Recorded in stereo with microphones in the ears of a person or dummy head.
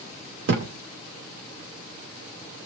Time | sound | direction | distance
0.5 | a thud | 60° right (ahead or behind) | 2 m